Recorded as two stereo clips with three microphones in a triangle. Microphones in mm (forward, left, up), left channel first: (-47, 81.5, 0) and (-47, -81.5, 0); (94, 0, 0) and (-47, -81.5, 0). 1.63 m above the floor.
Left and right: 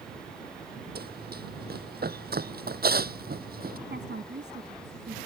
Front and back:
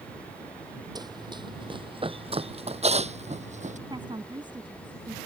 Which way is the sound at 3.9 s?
85° right.